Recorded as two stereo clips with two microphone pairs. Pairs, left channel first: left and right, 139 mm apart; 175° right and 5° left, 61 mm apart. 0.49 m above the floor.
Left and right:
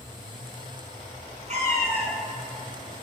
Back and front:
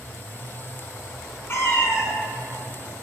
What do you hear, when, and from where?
1.5 s a cat meowing: 125° right, 2.5 m